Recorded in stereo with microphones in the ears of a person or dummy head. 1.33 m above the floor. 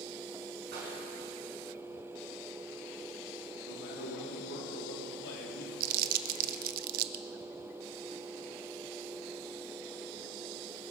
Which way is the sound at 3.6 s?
70° left (ahead or behind).